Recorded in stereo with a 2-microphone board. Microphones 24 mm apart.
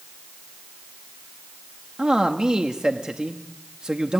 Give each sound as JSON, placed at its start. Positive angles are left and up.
{"t": 2.0, "sound": "a man speaking", "side_deg": -35, "distance_m": 1.1}